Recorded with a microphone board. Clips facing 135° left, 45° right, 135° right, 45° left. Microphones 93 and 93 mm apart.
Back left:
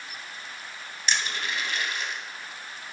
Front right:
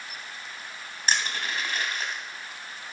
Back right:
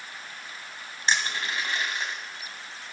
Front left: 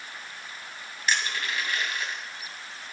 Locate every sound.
1.1 s crushing: 80° right, 2 m